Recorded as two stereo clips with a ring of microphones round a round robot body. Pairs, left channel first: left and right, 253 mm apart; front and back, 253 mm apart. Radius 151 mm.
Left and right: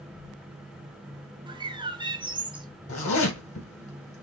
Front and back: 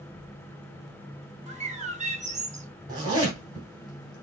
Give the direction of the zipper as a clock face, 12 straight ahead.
8 o'clock.